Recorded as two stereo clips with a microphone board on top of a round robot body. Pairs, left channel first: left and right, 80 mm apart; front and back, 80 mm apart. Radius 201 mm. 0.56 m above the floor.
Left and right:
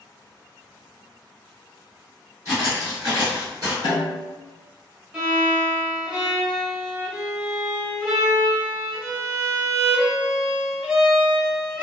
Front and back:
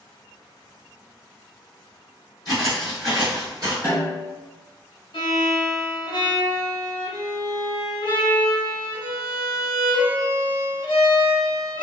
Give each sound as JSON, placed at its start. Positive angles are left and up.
{"t": 2.5, "sound": "footsteps", "azimuth_deg": -40, "distance_m": 0.6}
{"t": 3.8, "sound": "a snare drum", "azimuth_deg": 70, "distance_m": 0.6}
{"t": 5.1, "sound": "a violin", "azimuth_deg": -15, "distance_m": 1.0}